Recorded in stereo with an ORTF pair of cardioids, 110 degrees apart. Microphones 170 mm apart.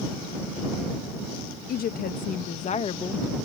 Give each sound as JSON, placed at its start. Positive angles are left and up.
{"t": 1.7, "sound": "a woman speaking", "azimuth_deg": 60}